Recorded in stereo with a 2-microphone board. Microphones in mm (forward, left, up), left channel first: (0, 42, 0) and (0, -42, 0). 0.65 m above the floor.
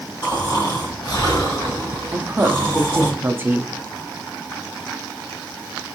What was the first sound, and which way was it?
Snoring, 55° left (ahead or behind).